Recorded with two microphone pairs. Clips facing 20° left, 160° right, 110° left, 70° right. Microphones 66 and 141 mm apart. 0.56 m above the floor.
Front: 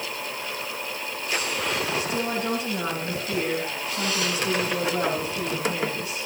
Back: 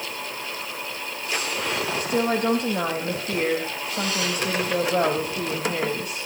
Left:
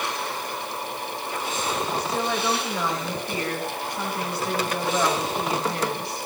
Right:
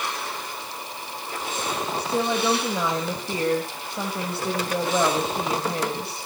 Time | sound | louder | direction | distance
2.0 | a woman speaking | back 4 dB, right 2 dB | 130° right | 3 m